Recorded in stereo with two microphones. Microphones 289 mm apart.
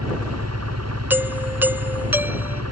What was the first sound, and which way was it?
An engine running, 60° right (ahead or behind).